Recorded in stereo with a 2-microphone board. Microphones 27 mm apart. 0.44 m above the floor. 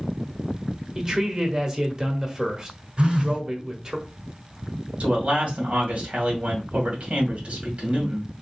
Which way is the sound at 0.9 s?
25° right (ahead or behind).